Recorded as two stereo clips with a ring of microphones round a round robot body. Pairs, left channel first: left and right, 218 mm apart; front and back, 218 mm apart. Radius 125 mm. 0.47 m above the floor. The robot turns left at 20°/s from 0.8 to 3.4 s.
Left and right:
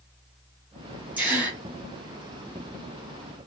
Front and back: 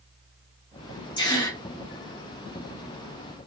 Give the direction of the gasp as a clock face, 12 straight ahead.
1 o'clock.